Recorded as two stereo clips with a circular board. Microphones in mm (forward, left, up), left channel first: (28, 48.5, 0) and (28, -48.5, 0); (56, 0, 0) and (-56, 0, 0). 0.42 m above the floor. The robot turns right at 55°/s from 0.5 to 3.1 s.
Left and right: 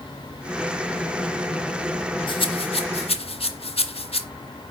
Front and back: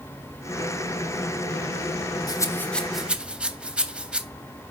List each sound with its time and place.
2.3 s a rattle: 55° left, 0.7 m; by 4.2 s 100° left, 0.7 m